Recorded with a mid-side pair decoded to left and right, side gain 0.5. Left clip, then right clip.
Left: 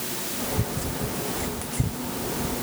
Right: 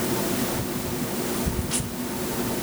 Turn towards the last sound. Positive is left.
No sound to turn to.